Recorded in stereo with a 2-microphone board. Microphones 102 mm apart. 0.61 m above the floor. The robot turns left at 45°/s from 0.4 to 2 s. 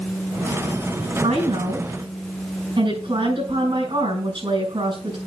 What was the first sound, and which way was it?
A woman speaking, 100° right.